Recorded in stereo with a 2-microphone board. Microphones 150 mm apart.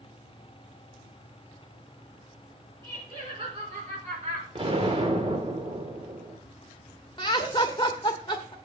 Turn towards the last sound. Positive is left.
turn(degrees=30)  # may be behind; listen again after turning